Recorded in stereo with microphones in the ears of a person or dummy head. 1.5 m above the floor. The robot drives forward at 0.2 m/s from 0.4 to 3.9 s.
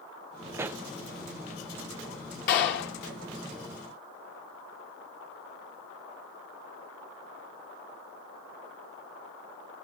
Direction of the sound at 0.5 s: 10° right (ahead or behind).